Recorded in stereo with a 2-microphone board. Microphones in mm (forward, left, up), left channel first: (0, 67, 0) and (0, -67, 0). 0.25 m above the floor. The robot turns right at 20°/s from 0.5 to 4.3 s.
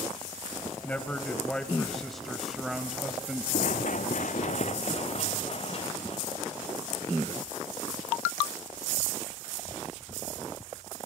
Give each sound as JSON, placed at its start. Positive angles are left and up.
{"t": 0.8, "sound": "a man speaking", "side_deg": 10, "distance_m": 1.0}
{"t": 3.5, "sound": "running footsteps", "side_deg": 75, "distance_m": 0.7}